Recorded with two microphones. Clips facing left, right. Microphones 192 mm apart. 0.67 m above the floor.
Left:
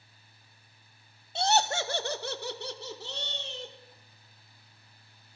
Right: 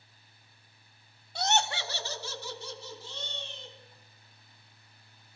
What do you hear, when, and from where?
1.4 s laughter: 25° left (ahead or behind), 0.5 m; by 3.8 s 75° left (ahead or behind), 1.8 m